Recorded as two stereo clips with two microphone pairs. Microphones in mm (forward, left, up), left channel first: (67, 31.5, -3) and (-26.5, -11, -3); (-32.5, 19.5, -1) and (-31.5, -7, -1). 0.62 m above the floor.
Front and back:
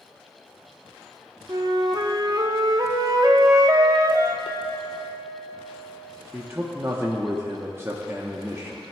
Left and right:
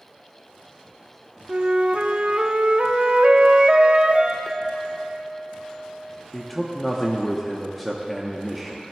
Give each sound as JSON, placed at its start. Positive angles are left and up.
{"t": 1.5, "sound": "a flute", "azimuth_deg": -120, "distance_m": 0.6}
{"t": 4.5, "sound": "a clink", "azimuth_deg": 10, "distance_m": 0.7}
{"t": 6.3, "sound": "a man speaking", "azimuth_deg": 175, "distance_m": 0.8}